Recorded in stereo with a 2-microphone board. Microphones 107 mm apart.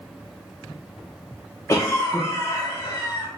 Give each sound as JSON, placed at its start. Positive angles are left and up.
{"t": 1.7, "sound": "a cough", "side_deg": 25, "distance_m": 0.6}